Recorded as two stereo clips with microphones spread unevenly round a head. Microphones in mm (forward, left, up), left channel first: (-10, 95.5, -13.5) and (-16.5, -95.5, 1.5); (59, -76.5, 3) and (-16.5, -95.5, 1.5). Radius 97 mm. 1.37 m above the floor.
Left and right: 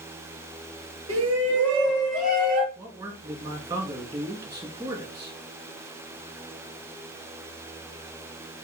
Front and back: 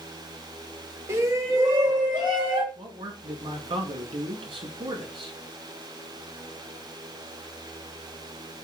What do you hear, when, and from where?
1.1 s a shout: 115° right, 3 m; by 2.6 s 140° right, 3 m
2.8 s a man speaking: 165° right, 2.5 m